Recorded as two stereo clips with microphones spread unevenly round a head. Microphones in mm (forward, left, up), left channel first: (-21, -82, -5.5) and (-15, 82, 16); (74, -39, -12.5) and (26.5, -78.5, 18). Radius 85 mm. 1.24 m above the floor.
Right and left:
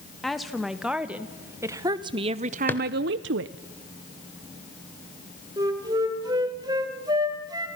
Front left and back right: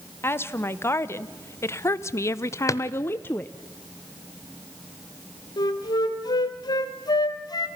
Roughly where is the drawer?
Ahead.